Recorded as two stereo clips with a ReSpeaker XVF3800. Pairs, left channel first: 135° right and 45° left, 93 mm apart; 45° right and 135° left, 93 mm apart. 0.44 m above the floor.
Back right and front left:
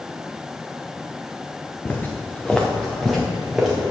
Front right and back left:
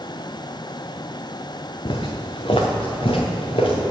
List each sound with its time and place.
1.9 s footsteps: 70° right, 1.3 m; by 3.8 s 40° right, 2.5 m